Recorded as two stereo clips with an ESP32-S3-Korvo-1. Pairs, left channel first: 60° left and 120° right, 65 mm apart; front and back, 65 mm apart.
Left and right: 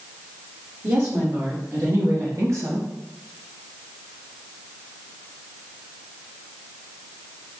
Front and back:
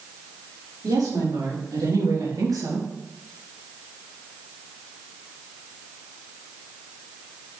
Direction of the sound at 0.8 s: 170° right.